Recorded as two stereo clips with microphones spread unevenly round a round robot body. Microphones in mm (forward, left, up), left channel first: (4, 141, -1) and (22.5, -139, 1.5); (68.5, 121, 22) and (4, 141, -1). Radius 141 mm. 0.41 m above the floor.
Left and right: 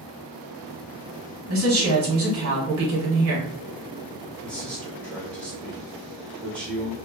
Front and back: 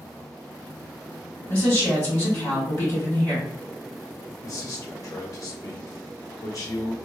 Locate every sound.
1.5 s a woman speaking: 85° right, 1.6 m
4.4 s a man speaking: 10° left, 1.3 m